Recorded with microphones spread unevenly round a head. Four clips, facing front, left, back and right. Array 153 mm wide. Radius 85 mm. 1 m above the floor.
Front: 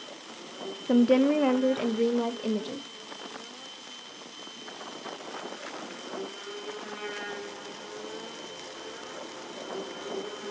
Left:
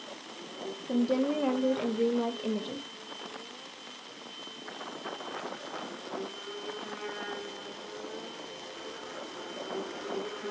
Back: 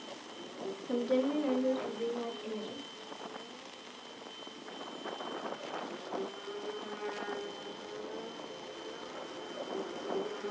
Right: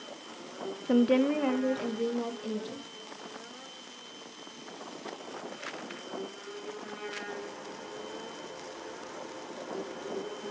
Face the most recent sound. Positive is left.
turn(degrees=30)